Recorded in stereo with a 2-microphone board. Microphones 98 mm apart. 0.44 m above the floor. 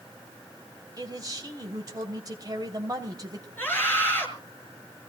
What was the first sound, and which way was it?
A man speaking, 40° right (ahead or behind).